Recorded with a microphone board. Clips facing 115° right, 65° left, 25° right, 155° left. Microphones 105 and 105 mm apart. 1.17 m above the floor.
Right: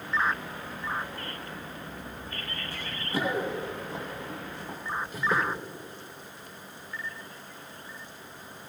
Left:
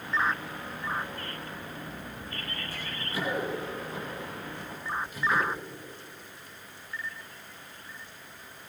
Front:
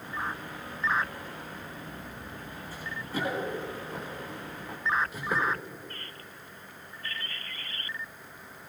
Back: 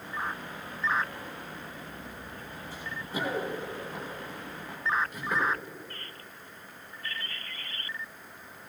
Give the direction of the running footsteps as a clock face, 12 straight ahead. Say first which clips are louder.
Right 5 dB, front 1 dB; 5 o'clock.